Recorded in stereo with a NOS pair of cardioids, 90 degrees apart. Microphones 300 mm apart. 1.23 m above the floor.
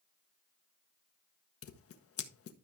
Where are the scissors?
50° left, 1.6 m.